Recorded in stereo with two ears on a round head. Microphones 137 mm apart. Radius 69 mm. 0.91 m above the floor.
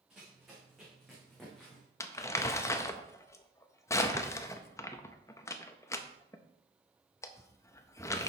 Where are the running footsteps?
5° right (ahead or behind), 4.5 m; by 1.9 s 5° left (ahead or behind), 3.5 m.